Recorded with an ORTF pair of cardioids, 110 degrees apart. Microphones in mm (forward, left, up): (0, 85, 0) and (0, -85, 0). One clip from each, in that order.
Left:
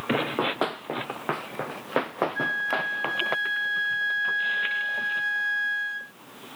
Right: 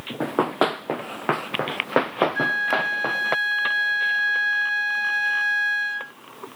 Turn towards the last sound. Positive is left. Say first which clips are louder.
# right 2 dB
turn(degrees=-30)